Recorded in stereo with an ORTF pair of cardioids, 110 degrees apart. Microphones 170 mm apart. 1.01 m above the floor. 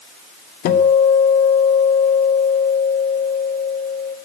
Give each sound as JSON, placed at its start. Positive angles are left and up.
{"t": 0.7, "sound": "a guitar", "azimuth_deg": 65, "distance_m": 1.4}